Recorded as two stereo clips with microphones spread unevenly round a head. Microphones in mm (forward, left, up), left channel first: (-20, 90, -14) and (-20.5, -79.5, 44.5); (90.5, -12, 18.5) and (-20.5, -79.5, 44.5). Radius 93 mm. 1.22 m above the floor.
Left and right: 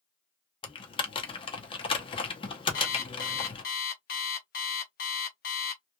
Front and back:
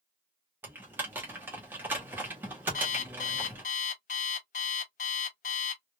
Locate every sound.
0.6 s typing on a keyboard: 160° left, 0.6 m
2.7 s an alarm clock: 45° left, 0.8 m